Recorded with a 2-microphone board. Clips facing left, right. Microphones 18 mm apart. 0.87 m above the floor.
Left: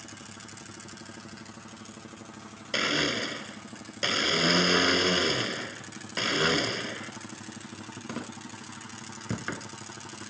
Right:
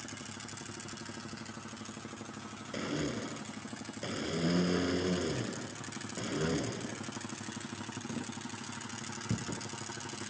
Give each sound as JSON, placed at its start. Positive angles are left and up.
{"t": 2.7, "sound": "a blender", "side_deg": 50}